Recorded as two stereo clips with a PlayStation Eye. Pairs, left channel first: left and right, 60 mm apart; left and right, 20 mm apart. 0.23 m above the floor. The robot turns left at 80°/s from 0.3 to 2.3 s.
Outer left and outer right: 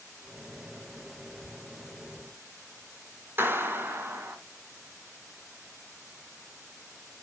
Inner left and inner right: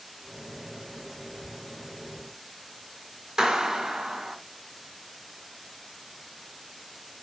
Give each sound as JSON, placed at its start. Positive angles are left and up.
{"t": 3.4, "sound": "a clap", "side_deg": -35, "distance_m": 2.0}